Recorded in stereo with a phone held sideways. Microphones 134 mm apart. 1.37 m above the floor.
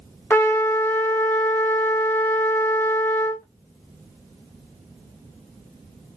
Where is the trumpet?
15° left (ahead or behind), 1.0 m.